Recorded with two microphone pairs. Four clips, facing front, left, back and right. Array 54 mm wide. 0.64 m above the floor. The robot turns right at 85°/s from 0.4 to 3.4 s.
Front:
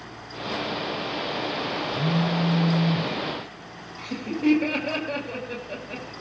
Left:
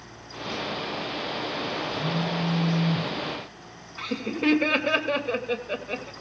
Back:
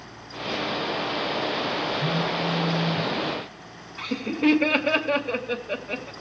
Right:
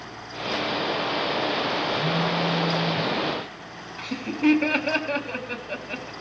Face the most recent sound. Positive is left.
turn(degrees=130)